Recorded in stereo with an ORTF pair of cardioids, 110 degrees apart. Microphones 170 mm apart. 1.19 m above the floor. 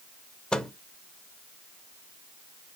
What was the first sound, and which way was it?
A microwave, 5° left.